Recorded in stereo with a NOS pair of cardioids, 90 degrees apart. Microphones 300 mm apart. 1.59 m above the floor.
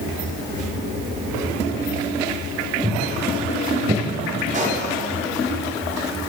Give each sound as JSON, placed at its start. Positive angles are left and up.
{"t": 2.8, "sound": "footsteps", "azimuth_deg": -25, "distance_m": 6.0}
{"t": 4.5, "sound": "a pop", "azimuth_deg": -25, "distance_m": 5.0}